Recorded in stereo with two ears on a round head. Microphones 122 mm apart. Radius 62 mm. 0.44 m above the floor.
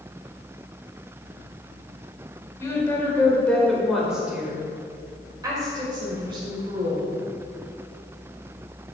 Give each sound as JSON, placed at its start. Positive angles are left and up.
{"t": 2.6, "sound": "a woman speaking", "side_deg": 25, "distance_m": 1.7}